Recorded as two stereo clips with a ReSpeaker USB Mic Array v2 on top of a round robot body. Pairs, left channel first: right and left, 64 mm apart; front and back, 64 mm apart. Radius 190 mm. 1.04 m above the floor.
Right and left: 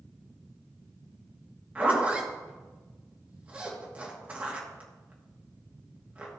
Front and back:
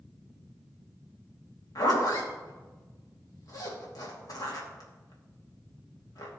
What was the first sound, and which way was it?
A zipper, 20° left.